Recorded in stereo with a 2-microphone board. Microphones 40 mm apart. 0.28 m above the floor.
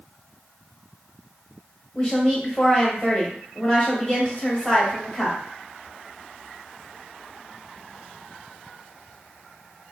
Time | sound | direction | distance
1.9 | a woman speaking | 25° left (ahead or behind) | 0.9 m